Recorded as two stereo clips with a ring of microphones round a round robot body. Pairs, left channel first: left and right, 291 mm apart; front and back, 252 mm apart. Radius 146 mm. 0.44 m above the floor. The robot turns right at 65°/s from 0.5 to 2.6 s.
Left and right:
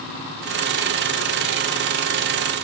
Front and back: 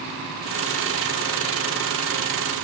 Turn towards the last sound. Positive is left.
No sound to turn to.